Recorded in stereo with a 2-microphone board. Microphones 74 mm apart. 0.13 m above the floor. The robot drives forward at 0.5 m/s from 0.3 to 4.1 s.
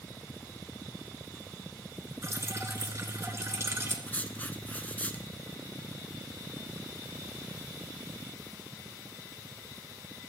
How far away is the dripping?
About 1.5 m.